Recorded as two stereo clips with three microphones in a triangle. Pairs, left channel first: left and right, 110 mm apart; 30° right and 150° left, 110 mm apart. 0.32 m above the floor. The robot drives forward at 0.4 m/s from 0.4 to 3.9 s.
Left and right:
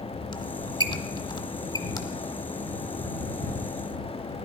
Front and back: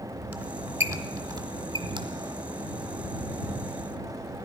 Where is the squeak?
75° left, 0.9 m; by 2.0 s 135° left, 1.0 m.